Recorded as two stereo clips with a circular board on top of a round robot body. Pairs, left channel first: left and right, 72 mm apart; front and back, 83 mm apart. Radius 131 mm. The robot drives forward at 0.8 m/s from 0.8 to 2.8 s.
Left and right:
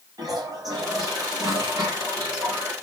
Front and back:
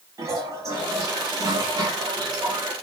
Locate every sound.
0.2 s a toilet flushing: 125° right, 5 m; by 2.7 s 140° right, 6 m